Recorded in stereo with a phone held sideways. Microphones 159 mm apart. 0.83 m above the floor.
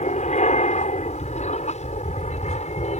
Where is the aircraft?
45° left (ahead or behind).